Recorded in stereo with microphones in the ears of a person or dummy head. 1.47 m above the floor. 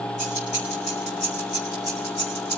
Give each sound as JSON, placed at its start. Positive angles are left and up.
{"t": 0.2, "sound": "keys jangling", "side_deg": 55, "distance_m": 5.0}